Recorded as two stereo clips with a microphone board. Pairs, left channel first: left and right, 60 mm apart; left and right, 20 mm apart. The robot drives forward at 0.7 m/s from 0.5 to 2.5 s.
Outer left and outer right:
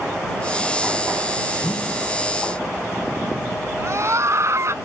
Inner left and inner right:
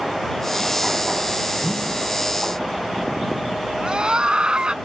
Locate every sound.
1.6 s a whoosh: 50° left (ahead or behind)
3.8 s a scream: 55° right (ahead or behind)